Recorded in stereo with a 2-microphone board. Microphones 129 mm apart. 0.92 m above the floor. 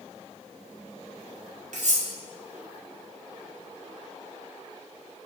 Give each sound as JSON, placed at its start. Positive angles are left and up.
{"t": 1.7, "sound": "cutlery clinking", "side_deg": -75, "distance_m": 0.5}